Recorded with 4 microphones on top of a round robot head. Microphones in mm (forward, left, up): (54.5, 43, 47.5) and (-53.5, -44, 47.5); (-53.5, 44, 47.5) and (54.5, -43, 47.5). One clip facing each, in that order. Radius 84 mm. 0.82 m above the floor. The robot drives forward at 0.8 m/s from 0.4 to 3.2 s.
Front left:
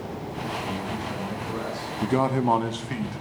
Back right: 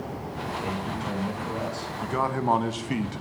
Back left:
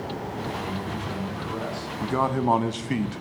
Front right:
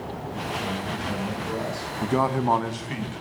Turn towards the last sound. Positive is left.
turn(degrees=170)